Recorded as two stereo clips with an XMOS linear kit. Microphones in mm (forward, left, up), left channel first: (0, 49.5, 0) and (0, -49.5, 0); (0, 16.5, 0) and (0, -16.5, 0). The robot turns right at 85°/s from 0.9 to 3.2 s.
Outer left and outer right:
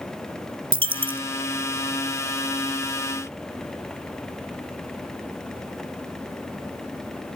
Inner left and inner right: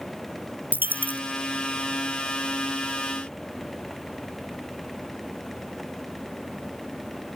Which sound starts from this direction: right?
A dropped coin, at 0.7 s.